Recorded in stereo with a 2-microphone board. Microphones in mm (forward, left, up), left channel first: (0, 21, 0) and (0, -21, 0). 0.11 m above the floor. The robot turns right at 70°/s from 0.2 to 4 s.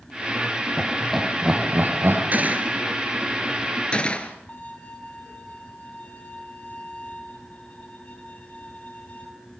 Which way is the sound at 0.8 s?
20° left (ahead or behind).